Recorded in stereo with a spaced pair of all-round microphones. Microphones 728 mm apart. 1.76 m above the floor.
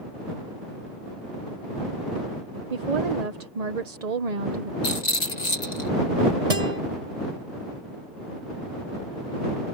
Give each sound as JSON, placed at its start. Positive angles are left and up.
{"t": 2.7, "sound": "a woman speaking", "side_deg": -60}
{"t": 4.8, "sound": "a rattle", "side_deg": 65}
{"t": 6.5, "sound": "a guitar", "side_deg": -65}